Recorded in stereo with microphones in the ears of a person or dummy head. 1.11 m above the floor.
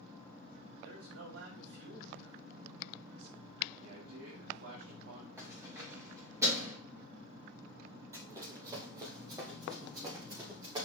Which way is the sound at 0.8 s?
85° right.